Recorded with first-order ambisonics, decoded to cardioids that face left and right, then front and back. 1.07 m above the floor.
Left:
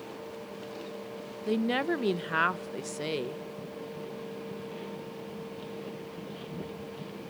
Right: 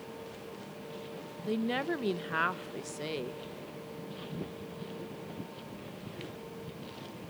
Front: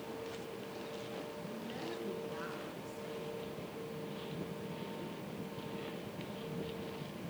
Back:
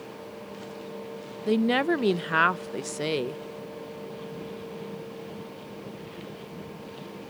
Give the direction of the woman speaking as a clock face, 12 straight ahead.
7 o'clock.